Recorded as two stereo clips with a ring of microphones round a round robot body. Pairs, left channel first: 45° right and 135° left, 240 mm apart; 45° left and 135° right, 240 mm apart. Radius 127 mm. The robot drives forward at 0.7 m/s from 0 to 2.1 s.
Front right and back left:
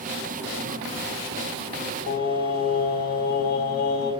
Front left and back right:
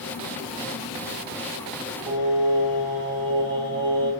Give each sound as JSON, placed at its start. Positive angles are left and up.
{"t": 2.1, "sound": "singing", "azimuth_deg": -95, "distance_m": 2.5}